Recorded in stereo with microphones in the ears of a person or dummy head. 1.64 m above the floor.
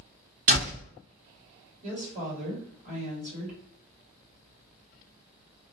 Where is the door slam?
25° right (ahead or behind), 0.6 m.